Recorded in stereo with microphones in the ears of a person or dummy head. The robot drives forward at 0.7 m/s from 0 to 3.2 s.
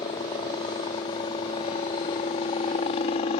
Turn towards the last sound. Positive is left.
turn(degrees=35)  # may be behind; listen again after turning